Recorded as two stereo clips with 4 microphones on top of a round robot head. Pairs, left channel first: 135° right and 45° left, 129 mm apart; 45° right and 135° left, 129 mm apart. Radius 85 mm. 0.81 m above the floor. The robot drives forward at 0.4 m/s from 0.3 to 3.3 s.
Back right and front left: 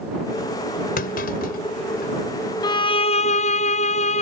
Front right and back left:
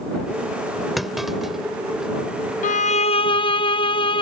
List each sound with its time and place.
1.0 s a clunk: 135° right; by 2.1 s 140° right
2.6 s a violin: 75° right; by 4.2 s 95° right